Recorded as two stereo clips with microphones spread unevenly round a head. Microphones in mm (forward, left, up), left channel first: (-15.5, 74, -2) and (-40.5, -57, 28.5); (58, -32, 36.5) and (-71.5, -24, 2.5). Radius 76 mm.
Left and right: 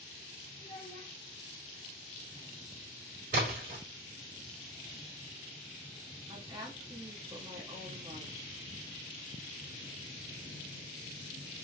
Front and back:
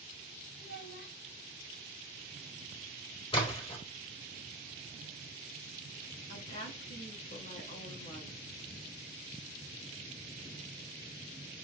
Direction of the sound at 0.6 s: 10° left.